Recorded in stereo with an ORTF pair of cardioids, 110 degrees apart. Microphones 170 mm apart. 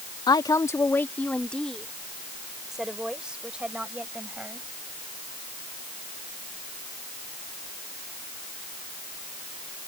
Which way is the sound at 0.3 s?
25° left.